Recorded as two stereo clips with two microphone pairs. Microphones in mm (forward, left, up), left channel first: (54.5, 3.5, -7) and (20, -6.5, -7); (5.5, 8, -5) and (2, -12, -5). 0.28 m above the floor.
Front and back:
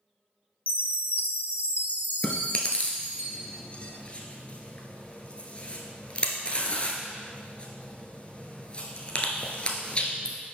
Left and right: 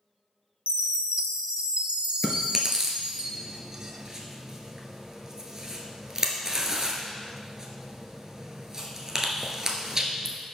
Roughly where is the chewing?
Ahead right.